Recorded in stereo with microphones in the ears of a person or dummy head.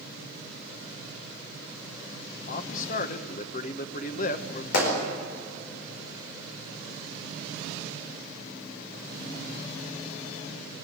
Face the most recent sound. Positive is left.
turn(degrees=60)  # may be behind; listen again after turning